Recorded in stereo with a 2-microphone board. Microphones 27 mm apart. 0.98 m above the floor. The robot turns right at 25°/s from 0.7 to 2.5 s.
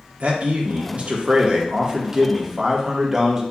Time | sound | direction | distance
0.2 | a man speaking | 60° right | 0.9 m